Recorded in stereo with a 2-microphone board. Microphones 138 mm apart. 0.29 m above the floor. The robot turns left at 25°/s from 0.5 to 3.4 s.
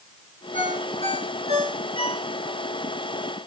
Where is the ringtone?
75° right (ahead or behind), 4 m; by 2.6 s 30° right (ahead or behind), 4 m.